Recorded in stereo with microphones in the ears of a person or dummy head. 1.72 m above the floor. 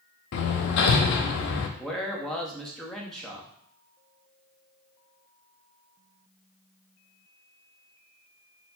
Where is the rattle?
I don't hear a rattle.